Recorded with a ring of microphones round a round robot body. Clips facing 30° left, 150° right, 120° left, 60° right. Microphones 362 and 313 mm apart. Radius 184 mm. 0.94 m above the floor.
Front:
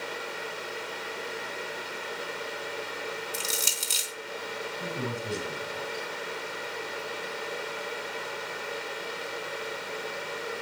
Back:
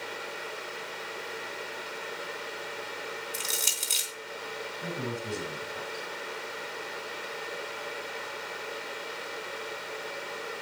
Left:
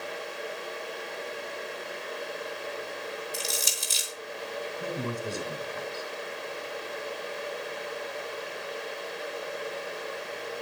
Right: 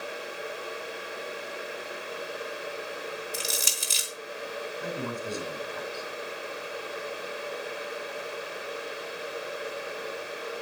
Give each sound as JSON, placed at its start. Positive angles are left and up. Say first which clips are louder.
{"t": 3.3, "sound": "crushing", "louder": "front 3 dB, even", "azimuth_deg": -40, "distance_m": 3.5}
{"t": 4.8, "sound": "a man speaking", "louder": "even, left 1 dB", "azimuth_deg": 55, "distance_m": 8.0}